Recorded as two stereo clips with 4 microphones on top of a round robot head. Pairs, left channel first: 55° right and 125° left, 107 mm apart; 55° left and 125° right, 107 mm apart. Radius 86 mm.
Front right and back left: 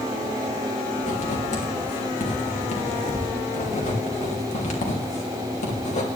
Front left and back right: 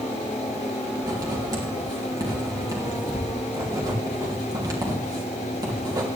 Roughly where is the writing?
Ahead right.